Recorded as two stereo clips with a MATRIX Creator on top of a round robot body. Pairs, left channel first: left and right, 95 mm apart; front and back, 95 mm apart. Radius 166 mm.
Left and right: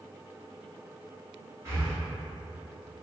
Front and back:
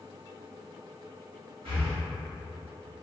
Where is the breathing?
155° right, 1.3 m.